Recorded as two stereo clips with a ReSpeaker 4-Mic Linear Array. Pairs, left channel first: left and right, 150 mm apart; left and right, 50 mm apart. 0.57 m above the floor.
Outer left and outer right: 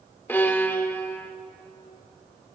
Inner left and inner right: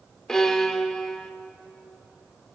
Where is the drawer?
I don't hear a drawer.